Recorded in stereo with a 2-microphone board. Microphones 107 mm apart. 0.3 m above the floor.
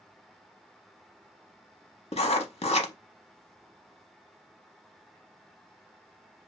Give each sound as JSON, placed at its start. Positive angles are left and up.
{"t": 2.1, "sound": "writing", "side_deg": 75, "distance_m": 0.6}